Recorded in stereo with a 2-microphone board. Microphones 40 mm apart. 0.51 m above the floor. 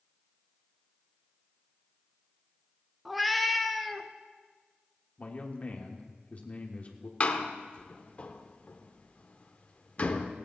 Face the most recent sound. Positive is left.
turn(degrees=35)  # may be behind; listen again after turning